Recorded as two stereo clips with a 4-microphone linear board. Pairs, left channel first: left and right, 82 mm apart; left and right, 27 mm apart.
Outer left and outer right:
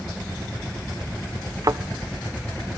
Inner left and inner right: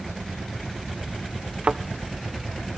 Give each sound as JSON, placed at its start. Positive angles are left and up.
{"t": 1.6, "sound": "a thud", "side_deg": -45, "distance_m": 0.8}